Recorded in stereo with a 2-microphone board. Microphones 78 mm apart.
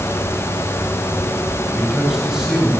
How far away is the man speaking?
About 7.5 m.